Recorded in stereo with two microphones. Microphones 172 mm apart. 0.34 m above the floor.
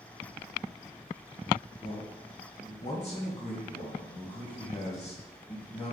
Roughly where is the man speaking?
Left.